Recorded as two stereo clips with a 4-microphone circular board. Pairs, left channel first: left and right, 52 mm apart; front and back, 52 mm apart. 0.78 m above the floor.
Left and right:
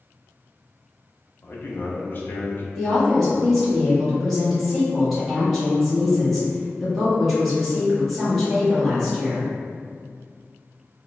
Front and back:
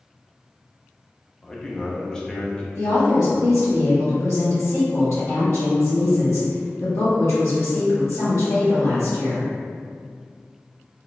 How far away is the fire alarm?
No fire alarm in this recording.